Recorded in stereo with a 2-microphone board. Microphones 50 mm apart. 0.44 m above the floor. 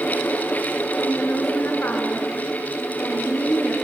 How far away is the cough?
I don't hear a cough.